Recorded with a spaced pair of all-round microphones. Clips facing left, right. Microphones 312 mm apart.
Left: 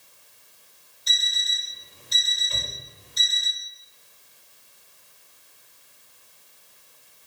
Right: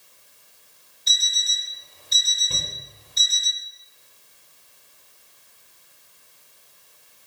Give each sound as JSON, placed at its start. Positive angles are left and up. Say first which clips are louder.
{"t": 1.1, "sound": "an alarm clock", "louder": "even", "side_deg": 65, "distance_m": 3.5}
{"t": 2.5, "sound": "a shout", "louder": "right 2 dB", "side_deg": -75, "distance_m": 6.5}